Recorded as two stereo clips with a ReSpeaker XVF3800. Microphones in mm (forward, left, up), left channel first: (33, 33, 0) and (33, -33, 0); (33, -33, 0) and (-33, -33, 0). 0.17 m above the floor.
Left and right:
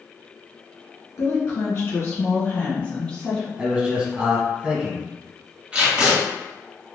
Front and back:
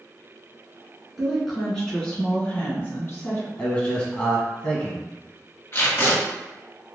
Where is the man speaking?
45° right, 1.4 m.